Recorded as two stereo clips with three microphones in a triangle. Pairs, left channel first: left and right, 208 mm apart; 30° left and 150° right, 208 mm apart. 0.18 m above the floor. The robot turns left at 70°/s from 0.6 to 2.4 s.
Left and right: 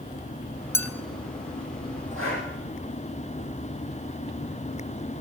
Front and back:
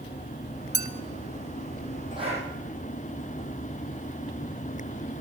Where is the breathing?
85° right, 7 m; by 2.5 s 100° right, 7 m.